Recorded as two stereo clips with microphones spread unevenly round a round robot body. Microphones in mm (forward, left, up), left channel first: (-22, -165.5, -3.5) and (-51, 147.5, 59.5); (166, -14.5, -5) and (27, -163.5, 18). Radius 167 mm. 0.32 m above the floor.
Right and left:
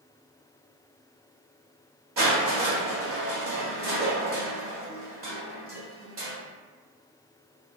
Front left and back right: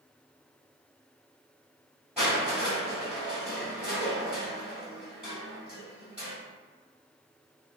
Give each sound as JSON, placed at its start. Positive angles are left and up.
{"t": 2.2, "sound": "crushing", "azimuth_deg": 135, "distance_m": 1.7}